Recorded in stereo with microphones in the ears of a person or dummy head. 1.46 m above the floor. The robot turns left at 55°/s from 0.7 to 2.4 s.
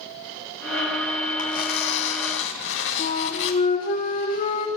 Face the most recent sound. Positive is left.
turn(degrees=40)  # may be behind; listen again after turning